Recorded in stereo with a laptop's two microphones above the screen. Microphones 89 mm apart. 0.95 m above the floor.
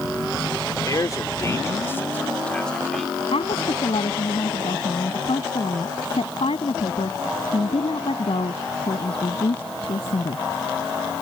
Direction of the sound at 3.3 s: 85° left.